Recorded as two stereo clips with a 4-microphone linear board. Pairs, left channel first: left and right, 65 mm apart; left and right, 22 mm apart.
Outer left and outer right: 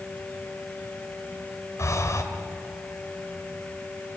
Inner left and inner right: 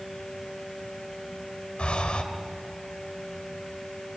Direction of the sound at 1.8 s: 55° left (ahead or behind).